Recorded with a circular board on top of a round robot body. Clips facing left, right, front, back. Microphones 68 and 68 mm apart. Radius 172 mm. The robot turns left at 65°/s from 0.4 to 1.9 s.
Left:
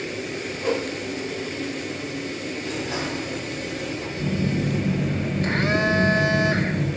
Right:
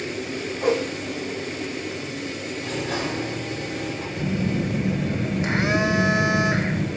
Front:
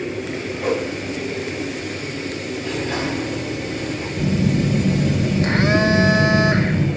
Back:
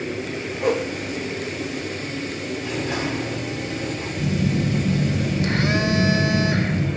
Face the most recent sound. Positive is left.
turn(degrees=-20)